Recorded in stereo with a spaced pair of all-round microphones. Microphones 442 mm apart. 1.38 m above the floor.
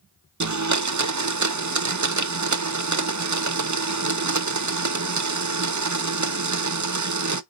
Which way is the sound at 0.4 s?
40° right (ahead or behind).